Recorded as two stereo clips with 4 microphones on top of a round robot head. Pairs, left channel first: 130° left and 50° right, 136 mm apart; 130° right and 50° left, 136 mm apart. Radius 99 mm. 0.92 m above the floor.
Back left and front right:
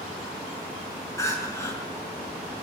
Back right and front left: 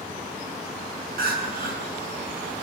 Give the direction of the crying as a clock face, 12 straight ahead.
10 o'clock.